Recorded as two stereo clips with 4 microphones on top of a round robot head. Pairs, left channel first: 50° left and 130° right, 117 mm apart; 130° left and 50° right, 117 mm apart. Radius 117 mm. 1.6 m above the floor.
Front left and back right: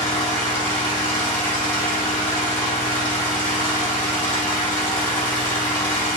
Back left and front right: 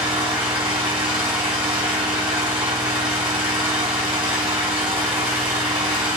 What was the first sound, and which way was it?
An engine running, 5° right.